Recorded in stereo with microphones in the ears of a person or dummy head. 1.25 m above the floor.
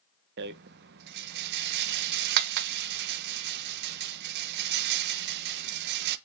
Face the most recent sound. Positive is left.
turn(degrees=-60)  # may be behind; listen again after turning